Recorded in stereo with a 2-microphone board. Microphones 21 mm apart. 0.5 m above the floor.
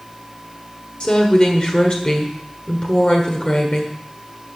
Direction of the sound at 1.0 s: 40° left (ahead or behind).